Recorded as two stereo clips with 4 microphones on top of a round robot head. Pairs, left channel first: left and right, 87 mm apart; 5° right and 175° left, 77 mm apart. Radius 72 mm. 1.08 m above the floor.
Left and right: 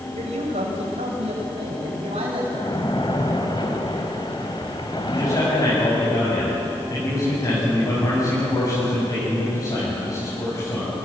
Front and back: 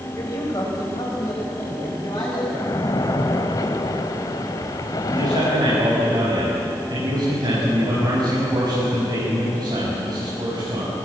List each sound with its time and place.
0.1 s a man speaking: 70° right, 5.5 m; by 2.4 s 60° right, 7.5 m
2.5 s a splash: 30° left, 1.5 m
5.1 s a man speaking: 140° left, 7.5 m